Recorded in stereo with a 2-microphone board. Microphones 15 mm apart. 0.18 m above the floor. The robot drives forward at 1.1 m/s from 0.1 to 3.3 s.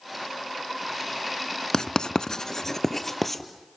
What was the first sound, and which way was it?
Writing, 45° left (ahead or behind).